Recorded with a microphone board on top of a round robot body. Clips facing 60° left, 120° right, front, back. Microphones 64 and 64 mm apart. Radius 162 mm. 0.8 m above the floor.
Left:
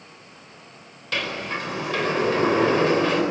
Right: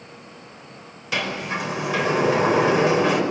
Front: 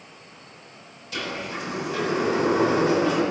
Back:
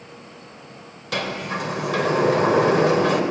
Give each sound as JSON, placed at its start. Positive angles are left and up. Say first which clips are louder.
{"t": 1.1, "sound": "a sliding door", "louder": "right 2 dB, back 5 dB", "azimuth_deg": 160, "distance_m": 4.5}